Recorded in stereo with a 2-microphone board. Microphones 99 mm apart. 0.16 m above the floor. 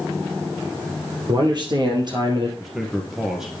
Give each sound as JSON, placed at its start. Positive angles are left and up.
{"t": 1.3, "sound": "a man speaking", "side_deg": -50, "distance_m": 4.0}
{"t": 2.6, "sound": "a man speaking", "side_deg": -5, "distance_m": 2.5}